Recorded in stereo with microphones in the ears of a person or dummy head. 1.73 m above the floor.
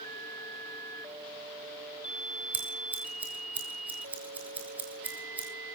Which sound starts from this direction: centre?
Scissors, at 2.5 s.